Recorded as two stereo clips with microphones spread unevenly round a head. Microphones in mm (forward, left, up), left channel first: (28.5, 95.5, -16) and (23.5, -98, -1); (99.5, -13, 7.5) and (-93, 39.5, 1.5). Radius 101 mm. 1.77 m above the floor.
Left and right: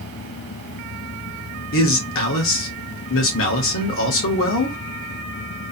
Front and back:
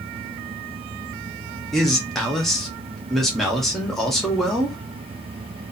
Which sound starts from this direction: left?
A man speaking, at 1.7 s.